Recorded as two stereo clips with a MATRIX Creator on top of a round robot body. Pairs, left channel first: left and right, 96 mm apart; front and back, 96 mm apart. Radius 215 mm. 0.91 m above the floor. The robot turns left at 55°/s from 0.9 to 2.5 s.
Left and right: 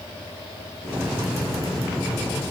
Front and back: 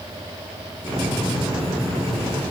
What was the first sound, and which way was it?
Only background noise.